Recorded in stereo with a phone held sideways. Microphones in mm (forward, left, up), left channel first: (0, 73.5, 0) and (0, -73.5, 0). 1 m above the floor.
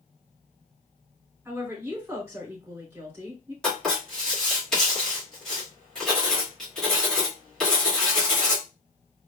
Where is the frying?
I don't hear frying.